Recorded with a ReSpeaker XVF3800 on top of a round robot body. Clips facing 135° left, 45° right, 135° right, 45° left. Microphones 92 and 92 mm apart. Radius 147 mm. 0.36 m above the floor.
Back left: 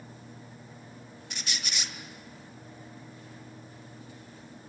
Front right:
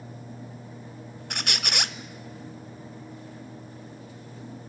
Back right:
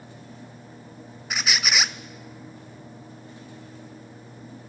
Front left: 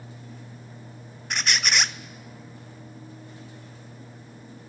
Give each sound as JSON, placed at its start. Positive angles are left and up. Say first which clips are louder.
{"t": 1.3, "sound": "a squeak", "louder": "front right 7 dB, even", "azimuth_deg": -50, "distance_m": 0.9}